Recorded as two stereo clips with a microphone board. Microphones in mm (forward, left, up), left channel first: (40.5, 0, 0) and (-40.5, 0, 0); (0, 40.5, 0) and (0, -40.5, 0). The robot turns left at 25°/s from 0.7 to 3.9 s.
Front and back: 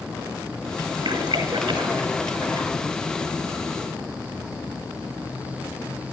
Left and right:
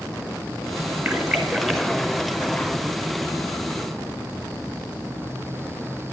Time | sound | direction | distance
1.1 | a splash | 170° right | 1.0 m